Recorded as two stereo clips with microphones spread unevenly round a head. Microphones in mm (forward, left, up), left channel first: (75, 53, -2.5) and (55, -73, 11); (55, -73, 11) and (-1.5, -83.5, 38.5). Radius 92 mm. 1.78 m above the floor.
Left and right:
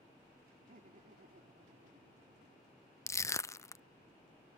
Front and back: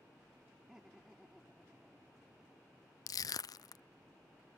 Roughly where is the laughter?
Right.